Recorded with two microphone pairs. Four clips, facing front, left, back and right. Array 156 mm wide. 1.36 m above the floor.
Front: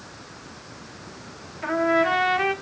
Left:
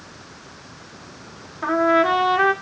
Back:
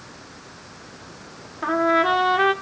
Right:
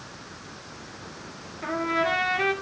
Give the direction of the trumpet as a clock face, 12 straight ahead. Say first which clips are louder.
Left 9 dB, back 2 dB; 7 o'clock.